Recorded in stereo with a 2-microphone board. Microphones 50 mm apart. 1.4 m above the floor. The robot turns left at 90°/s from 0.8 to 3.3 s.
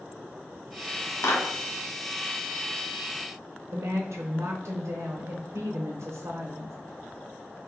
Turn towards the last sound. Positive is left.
turn(degrees=-75)  # may be behind; listen again after turning